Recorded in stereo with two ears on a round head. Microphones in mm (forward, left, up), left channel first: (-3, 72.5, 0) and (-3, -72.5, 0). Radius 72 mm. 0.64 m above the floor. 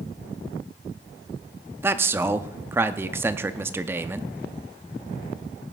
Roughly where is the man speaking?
Centre.